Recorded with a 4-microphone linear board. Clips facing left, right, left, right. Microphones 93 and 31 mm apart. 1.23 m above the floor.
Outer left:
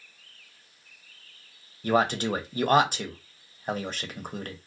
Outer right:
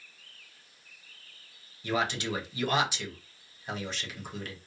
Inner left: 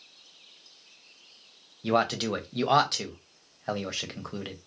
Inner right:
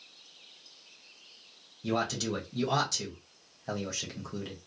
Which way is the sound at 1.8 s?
45° left (ahead or behind).